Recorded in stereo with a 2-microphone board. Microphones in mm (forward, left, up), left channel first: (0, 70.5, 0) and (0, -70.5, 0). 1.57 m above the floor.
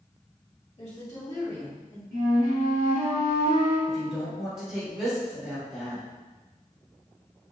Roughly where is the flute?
Right.